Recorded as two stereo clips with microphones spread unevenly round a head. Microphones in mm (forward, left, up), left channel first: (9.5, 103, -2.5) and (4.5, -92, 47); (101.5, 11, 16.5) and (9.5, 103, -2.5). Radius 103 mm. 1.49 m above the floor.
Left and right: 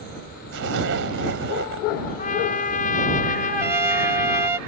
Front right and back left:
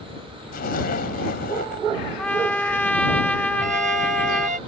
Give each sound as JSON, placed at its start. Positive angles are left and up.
{"t": 0.5, "sound": "a zipper", "azimuth_deg": -65}
{"t": 2.2, "sound": "a trumpet", "azimuth_deg": 35}
{"t": 3.5, "sound": "a trumpet", "azimuth_deg": -165}